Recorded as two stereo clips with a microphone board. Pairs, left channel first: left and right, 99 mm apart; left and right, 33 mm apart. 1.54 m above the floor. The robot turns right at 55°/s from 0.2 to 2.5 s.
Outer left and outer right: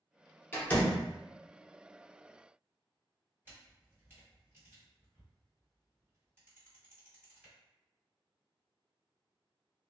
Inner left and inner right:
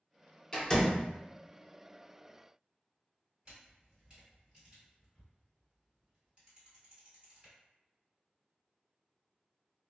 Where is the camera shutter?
25° right (ahead or behind), 1.9 m.